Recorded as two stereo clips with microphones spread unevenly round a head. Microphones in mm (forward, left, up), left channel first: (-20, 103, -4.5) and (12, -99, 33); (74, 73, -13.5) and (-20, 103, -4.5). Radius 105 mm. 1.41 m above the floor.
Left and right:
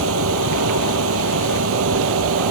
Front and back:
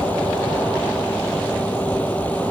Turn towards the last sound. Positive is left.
turn(degrees=-100)